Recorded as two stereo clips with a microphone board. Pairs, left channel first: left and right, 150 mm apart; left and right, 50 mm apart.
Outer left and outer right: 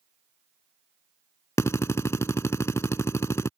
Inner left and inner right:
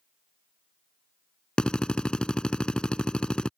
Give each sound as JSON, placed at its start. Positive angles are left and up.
{"t": 1.6, "sound": "a drill", "side_deg": 20}